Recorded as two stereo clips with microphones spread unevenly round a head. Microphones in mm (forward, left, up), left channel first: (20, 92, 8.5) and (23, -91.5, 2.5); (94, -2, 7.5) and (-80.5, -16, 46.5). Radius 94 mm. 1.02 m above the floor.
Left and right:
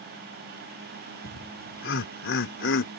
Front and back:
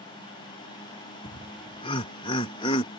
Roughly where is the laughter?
Left.